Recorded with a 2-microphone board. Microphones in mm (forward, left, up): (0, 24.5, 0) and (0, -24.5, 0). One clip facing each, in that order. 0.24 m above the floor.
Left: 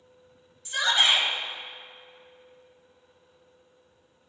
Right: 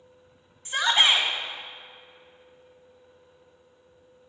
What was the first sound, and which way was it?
A shout, 35° right (ahead or behind).